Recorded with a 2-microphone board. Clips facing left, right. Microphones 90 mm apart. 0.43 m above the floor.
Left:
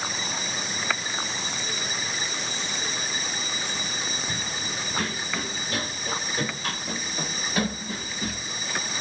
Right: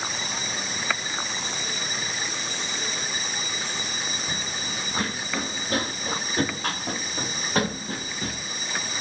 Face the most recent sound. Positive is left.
turn(degrees=-70)  # may be behind; listen again after turning